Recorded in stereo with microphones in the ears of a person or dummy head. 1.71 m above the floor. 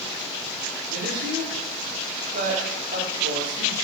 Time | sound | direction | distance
0.9 | a woman speaking | 55° right (ahead or behind) | 3 m